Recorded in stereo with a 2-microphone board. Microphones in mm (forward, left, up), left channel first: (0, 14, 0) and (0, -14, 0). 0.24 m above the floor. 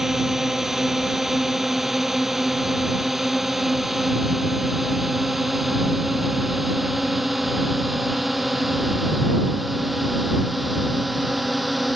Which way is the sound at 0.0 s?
15° right (ahead or behind).